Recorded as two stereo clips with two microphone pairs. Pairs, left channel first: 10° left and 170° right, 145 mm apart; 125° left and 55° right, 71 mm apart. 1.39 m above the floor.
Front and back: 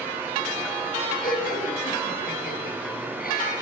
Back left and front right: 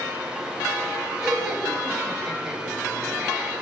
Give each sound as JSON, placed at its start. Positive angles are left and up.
{"t": 1.2, "sound": "laughter", "azimuth_deg": 25, "distance_m": 10.0}